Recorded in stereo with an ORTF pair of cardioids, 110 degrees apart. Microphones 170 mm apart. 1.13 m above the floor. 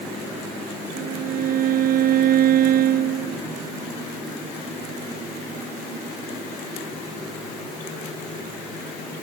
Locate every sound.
0.9 s a violin: 60° right